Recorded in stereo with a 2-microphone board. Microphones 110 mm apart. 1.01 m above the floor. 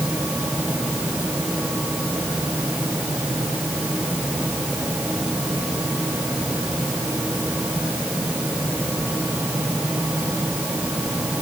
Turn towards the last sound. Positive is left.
No sound to turn to.